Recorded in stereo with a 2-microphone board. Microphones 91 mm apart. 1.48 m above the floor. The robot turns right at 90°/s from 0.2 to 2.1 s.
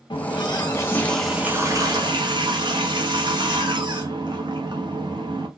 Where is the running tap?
85° left, 1.0 m; by 5.5 s 105° right, 1.0 m.